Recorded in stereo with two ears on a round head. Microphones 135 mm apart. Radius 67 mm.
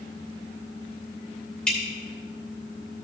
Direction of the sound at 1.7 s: 5° left (ahead or behind).